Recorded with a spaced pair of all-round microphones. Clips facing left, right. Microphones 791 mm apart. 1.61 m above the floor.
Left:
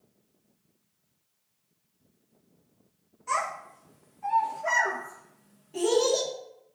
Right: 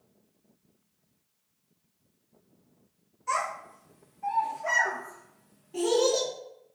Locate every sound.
3.3 s a child speaking: 5° right (ahead or behind), 1.0 m; by 6.3 s 15° left (ahead or behind), 1.3 m